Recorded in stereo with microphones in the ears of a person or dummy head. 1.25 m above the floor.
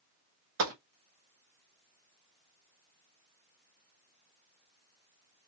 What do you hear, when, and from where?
0.6 s a gunshot: 75° right (ahead or behind), 1.0 m